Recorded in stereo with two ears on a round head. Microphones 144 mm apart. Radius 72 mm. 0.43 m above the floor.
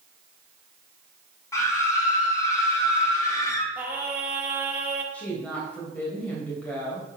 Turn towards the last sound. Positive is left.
turn(degrees=10)  # may be behind; listen again after turning